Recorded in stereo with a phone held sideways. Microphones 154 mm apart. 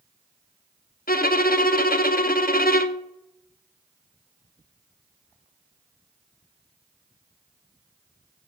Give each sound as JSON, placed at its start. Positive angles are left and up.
{"t": 1.1, "sound": "a violin", "side_deg": 70, "distance_m": 0.8}